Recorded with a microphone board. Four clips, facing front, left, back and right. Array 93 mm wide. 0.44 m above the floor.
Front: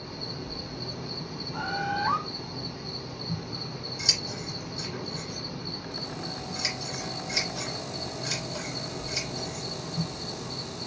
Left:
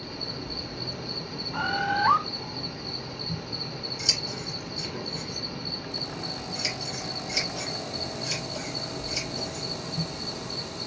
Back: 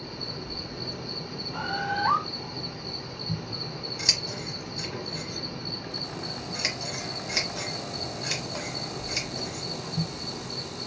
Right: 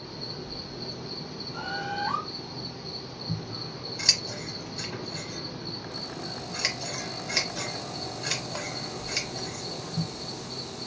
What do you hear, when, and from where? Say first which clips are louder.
0.0 s an insect: left 2 dB, even; 115° left, 0.7 m
1.5 s a bird: left 6 dB, even; 100° left, 0.6 m
3.3 s scissors: right 3 dB, back 2 dB; 120° right, 1.0 m